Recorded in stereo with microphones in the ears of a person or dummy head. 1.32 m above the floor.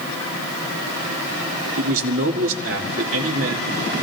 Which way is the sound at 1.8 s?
80° right.